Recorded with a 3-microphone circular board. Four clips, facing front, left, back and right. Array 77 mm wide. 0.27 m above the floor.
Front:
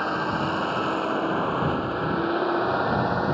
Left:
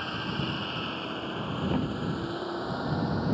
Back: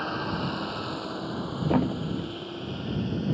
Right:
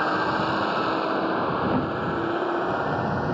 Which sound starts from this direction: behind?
A thud, at 1.7 s.